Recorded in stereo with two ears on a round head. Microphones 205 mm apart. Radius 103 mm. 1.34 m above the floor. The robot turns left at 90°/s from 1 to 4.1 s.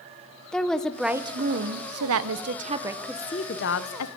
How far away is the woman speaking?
About 1.1 m.